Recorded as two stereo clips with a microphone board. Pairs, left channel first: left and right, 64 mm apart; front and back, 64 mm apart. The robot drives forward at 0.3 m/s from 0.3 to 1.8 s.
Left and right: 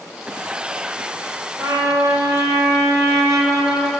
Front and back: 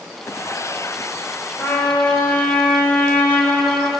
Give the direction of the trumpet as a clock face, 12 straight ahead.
2 o'clock.